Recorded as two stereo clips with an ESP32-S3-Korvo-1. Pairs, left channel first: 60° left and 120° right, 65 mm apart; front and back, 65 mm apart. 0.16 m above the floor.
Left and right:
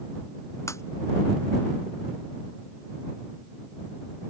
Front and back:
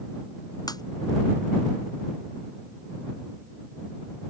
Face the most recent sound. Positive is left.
turn(degrees=15)